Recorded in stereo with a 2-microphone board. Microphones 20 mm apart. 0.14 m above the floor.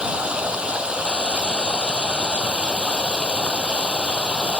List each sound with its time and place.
0.0 s running water: 70° right (ahead or behind)